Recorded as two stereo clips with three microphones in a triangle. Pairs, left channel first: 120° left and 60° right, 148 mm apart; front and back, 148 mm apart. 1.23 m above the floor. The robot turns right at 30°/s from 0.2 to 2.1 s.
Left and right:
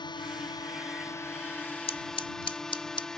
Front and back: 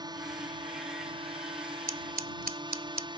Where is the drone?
145° left; by 3.2 s 155° right.